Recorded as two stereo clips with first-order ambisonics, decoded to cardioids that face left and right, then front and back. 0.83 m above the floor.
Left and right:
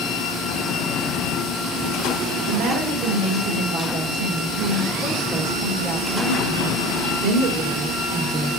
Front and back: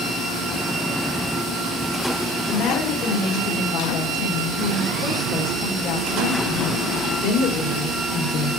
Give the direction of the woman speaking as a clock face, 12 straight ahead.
1 o'clock.